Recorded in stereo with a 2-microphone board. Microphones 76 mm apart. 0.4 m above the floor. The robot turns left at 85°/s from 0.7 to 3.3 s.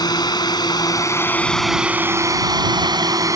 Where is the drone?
65° left (ahead or behind); by 3.4 s 50° right (ahead or behind).